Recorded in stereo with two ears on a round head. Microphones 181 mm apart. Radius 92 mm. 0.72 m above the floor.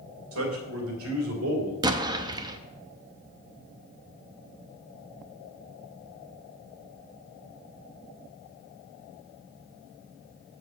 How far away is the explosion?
About 0.6 m.